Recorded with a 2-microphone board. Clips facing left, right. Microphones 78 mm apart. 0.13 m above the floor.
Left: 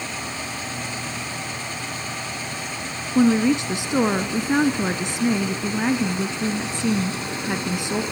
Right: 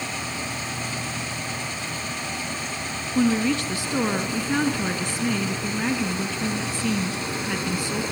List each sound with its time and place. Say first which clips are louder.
3.1 s a woman speaking: left 4 dB; 20° left (ahead or behind), 1.1 m